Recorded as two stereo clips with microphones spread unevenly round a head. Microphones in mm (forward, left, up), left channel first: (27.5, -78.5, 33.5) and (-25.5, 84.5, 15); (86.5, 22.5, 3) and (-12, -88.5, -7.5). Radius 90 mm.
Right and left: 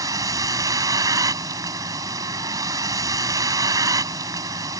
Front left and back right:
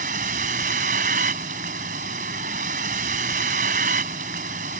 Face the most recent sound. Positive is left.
turn(degrees=180)